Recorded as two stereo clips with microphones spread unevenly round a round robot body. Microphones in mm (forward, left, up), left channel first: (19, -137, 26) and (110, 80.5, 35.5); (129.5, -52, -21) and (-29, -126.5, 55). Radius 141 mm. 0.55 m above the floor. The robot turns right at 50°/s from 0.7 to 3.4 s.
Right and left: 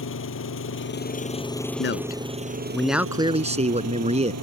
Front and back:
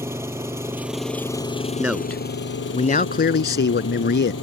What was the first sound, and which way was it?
An engine running, 80° right.